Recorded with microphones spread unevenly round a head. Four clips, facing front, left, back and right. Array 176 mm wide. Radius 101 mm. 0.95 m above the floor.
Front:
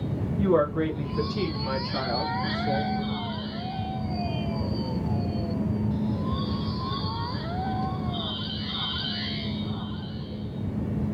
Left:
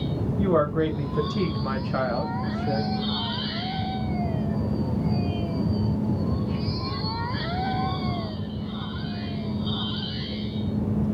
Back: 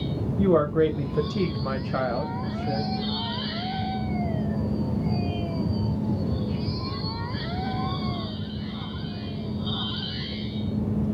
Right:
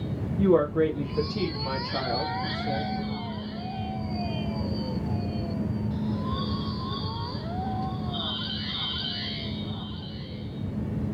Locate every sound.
0.4 s a woman speaking: 150° right, 0.9 m; by 2.9 s 85° left, 1.5 m